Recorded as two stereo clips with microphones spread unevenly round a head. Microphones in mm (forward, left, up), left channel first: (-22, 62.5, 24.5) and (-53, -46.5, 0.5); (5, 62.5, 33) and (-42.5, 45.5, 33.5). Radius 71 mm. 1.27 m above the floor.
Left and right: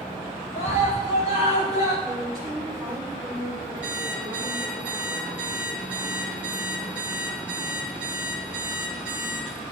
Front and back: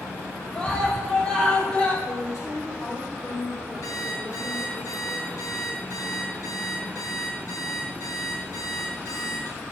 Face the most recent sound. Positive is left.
turn(degrees=-20)